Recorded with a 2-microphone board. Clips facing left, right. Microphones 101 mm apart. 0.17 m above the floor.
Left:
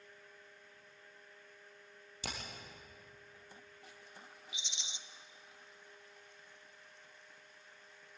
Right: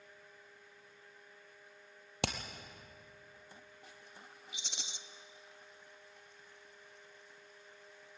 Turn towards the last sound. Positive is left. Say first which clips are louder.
# right 2 dB
turn(degrees=-65)  # may be behind; listen again after turning